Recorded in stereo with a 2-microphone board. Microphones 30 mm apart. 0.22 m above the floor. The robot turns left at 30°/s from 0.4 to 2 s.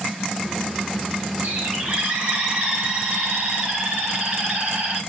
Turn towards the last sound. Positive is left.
turn(degrees=-40)  # may be behind; listen again after turning